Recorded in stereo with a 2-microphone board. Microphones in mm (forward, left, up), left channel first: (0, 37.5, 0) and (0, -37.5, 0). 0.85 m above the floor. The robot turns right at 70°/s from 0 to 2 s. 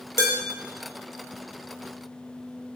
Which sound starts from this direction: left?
Dishes clattering, at 0.2 s.